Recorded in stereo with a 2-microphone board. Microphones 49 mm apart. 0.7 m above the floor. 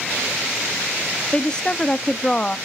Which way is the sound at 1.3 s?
15° left (ahead or behind).